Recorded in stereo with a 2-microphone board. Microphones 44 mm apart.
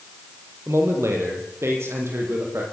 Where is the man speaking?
75° right (ahead or behind), 7 m; by 2.6 s 70° right (ahead or behind), 9.5 m.